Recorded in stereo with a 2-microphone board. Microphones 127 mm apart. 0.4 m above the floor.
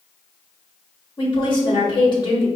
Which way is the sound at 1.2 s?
40° left (ahead or behind).